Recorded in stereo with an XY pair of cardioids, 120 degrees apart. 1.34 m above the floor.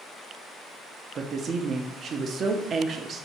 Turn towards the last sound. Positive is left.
turn(degrees=-45)